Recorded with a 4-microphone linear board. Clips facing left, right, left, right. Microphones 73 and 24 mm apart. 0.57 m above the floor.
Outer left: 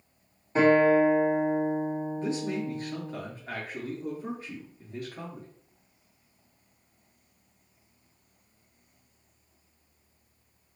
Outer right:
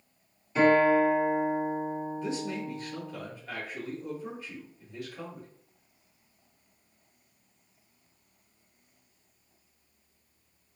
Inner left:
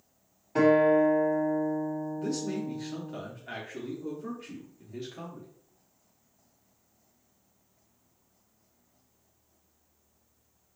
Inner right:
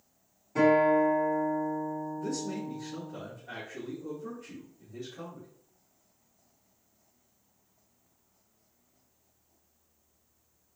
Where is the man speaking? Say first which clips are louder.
Outer left 3 dB, inner left 2 dB; 45° left (ahead or behind), 0.8 m.